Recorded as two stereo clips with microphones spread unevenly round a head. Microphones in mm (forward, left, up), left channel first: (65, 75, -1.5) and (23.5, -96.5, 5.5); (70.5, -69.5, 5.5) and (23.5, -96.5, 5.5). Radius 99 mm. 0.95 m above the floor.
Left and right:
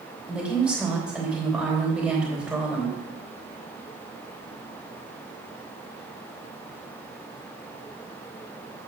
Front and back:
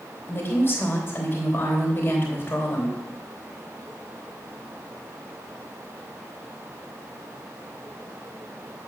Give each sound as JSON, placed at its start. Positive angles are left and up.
{"t": 0.3, "sound": "a woman speaking", "azimuth_deg": -20, "distance_m": 3.0}